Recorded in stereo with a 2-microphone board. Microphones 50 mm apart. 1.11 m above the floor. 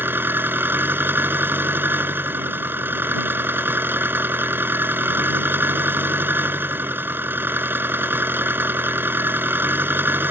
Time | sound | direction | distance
0.0 | an engine running | 45° right (ahead or behind) | ?